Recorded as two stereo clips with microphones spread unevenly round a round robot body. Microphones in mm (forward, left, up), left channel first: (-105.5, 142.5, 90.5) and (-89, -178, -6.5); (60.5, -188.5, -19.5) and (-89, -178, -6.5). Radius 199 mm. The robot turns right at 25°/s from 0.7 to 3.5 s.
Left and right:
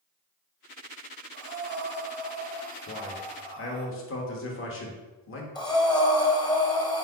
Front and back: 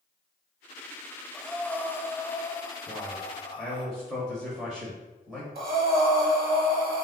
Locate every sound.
1.3 s breathing: 90° right, 0.7 m; by 3.9 s 35° right, 0.7 m
2.9 s a man speaking: 60° left, 0.8 m; by 5.5 s 75° left, 0.8 m
5.5 s breathing: 175° left, 0.8 m